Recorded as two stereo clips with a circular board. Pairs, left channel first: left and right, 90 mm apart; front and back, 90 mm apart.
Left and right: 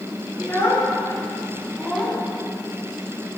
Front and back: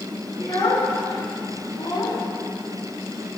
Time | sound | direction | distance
0.4 | a child speaking | 30° left | 2.5 m